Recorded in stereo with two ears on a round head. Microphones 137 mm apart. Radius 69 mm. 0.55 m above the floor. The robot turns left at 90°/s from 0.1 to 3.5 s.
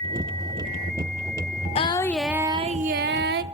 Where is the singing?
40° left, 0.5 m; by 3.4 s 110° right, 0.5 m.